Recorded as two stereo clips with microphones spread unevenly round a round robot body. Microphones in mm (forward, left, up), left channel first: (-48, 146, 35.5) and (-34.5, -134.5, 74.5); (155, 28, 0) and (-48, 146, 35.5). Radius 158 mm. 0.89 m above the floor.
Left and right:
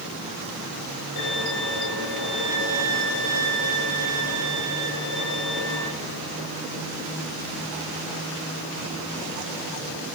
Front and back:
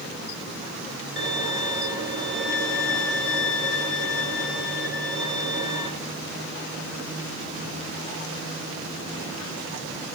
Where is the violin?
110° left, 5 m.